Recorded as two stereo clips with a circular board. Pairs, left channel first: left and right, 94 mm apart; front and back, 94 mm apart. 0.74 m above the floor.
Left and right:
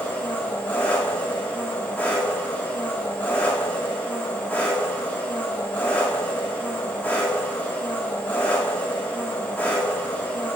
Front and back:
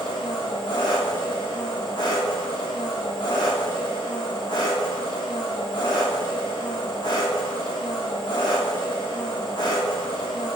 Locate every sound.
0.0 s an engine running: 20° left, 1.4 m